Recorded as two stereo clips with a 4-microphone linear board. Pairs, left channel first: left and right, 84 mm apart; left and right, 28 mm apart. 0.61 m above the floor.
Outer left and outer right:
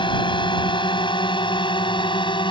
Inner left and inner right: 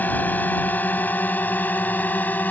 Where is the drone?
70° left (ahead or behind).